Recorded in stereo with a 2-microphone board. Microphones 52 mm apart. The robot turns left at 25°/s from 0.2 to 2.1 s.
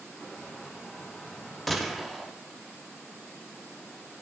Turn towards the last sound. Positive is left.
turn(degrees=-5)  # may be behind; listen again after turning